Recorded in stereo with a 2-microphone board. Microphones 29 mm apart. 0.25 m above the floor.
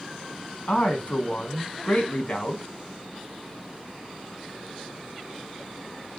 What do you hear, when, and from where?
0.7 s a man speaking: 50° left (ahead or behind), 1.8 m